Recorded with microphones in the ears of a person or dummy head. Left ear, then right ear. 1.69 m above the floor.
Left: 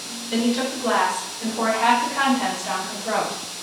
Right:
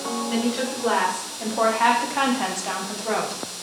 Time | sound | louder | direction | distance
0.3 | a woman speaking | left 6 dB | 5° right (ahead or behind) | 1.1 m